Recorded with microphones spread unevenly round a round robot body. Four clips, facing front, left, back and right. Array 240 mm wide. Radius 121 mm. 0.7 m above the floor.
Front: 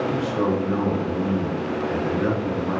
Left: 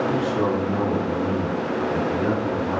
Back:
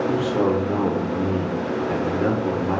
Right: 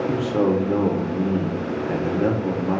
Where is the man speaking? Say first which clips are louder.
Right 2 dB, back 2 dB; 120° right, 0.8 m.